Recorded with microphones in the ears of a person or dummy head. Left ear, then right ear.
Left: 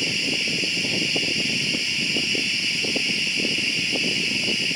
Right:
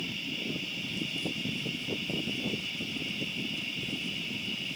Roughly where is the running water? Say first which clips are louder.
Left 12 dB; left.